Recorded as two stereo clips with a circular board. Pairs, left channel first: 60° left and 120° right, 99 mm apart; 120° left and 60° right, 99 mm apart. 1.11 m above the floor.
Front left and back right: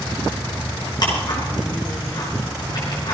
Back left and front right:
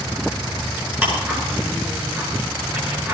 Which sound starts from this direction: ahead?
Ticking, at 1.0 s.